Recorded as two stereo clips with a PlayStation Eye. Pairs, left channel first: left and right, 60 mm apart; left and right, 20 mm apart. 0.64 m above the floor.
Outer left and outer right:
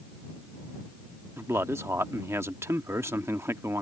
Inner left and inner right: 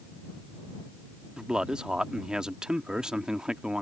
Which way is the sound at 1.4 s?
45° right (ahead or behind).